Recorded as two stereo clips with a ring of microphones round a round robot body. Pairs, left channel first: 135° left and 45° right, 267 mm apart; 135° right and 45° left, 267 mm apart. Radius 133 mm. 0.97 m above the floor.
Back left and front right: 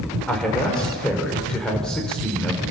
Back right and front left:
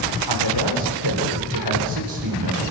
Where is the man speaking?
50° left, 4 m.